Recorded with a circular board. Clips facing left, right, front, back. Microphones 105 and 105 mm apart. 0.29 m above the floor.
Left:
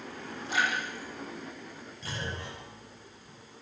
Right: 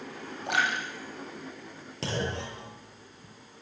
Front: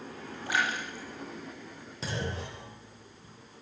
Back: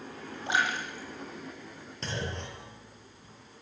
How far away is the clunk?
About 7.5 m.